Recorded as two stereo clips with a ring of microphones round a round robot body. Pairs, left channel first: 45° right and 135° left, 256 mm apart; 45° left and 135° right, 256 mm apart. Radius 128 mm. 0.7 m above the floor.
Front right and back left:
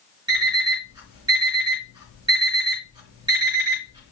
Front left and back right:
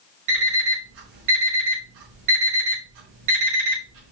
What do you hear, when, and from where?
0.3 s an alarm clock: 150° right, 4.5 m